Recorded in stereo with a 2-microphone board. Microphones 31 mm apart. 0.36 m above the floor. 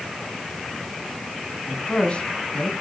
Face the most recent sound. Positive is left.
turn(degrees=35)  # may be behind; listen again after turning